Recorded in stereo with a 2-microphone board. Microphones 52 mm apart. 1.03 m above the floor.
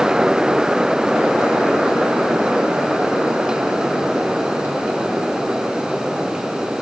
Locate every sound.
Only background noise.